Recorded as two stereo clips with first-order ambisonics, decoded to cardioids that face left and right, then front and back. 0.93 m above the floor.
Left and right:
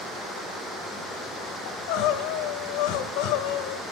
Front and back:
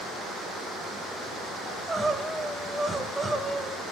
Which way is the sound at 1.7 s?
95° left.